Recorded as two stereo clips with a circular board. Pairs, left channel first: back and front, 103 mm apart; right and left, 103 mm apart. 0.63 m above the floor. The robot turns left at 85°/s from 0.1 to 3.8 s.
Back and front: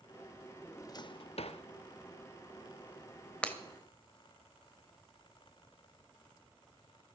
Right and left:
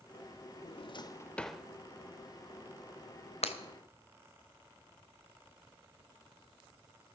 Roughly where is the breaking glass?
Right.